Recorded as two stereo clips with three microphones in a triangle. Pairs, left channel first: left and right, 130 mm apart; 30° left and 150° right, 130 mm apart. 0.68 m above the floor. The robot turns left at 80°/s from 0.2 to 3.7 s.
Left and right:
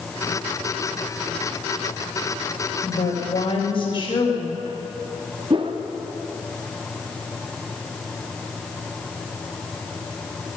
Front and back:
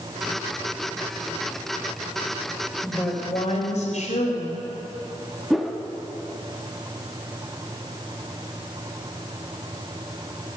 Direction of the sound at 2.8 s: 115° left.